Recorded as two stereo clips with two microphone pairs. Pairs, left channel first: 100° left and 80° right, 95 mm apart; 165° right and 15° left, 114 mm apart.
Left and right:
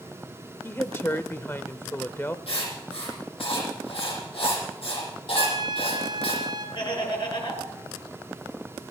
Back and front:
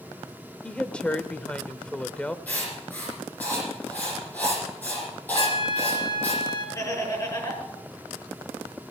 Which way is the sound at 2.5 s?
115° left.